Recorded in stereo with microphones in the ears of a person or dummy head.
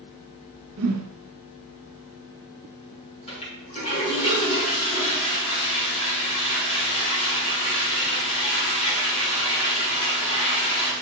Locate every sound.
0.8 s a whoosh: 80° right, 1.7 m
3.3 s a toilet flushing: 35° left (ahead or behind), 4 m